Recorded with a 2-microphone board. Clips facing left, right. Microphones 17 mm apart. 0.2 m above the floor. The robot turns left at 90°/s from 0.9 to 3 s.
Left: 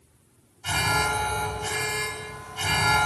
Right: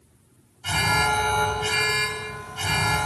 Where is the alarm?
20° right, 1.1 m; by 3.1 s 150° left, 1.1 m.